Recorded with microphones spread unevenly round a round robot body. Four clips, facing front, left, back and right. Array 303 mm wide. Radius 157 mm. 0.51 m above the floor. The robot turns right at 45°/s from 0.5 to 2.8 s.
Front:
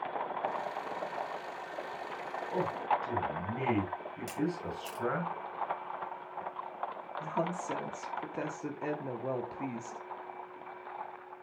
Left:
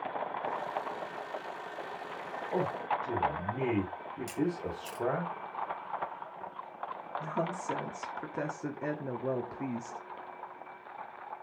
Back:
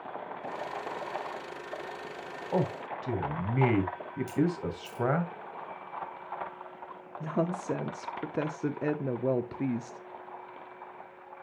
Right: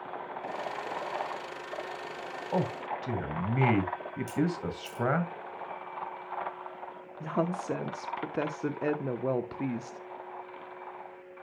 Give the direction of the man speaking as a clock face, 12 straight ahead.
4 o'clock.